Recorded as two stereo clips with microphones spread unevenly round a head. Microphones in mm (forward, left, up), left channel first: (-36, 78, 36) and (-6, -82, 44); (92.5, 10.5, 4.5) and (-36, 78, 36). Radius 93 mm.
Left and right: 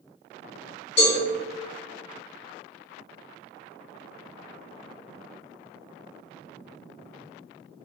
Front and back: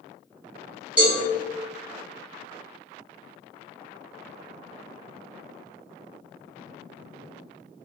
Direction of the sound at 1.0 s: 85° left.